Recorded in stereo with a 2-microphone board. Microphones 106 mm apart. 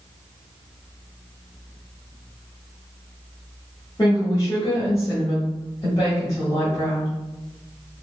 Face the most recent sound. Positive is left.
turn(degrees=40)  # may be behind; listen again after turning